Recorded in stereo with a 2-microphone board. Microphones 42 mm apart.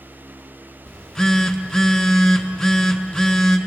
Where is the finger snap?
I don't hear a finger snap.